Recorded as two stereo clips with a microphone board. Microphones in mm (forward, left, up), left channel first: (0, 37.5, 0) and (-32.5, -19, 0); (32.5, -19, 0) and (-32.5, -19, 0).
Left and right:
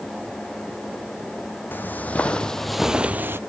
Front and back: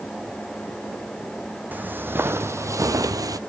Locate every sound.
1.7 s footsteps: 120° left, 1.0 m; by 3.4 s 170° right, 0.6 m